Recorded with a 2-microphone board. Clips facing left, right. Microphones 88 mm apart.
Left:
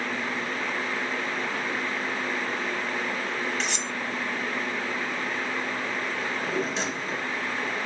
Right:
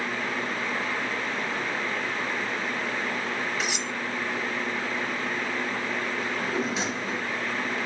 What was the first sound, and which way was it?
Cutlery clinking, 5° right (ahead or behind).